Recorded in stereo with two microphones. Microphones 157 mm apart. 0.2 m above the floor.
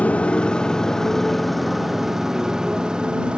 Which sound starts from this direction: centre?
A motorcycle, at 0.0 s.